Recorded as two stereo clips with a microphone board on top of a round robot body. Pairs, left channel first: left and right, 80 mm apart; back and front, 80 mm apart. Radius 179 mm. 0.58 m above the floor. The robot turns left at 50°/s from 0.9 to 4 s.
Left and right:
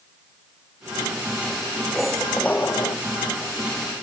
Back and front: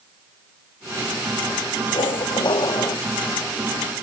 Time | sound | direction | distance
1.9 | a squeak | 175° right | ?